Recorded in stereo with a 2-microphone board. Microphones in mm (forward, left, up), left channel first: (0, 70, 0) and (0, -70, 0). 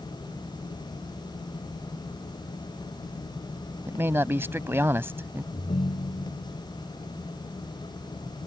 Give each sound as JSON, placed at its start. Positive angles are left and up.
{"t": 3.9, "sound": "a man speaking", "side_deg": -15}
{"t": 5.5, "sound": "a ringtone", "side_deg": 55}